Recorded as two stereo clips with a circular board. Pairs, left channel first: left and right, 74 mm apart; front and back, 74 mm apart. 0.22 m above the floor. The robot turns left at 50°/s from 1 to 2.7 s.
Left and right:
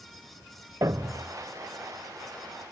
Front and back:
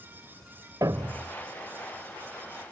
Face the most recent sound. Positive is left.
turn(degrees=140)